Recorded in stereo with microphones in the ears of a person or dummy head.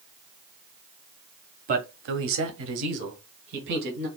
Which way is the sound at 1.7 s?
45° right (ahead or behind).